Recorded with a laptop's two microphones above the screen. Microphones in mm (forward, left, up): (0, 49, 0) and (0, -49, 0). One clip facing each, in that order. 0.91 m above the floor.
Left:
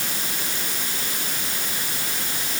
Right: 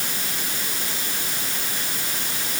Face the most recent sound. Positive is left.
No sound to turn to.